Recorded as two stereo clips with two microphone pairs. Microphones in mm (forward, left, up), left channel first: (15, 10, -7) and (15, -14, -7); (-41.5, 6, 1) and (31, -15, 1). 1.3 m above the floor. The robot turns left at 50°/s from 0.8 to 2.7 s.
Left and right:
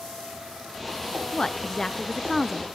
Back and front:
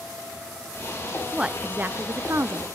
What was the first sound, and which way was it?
A woman speaking, 55° left.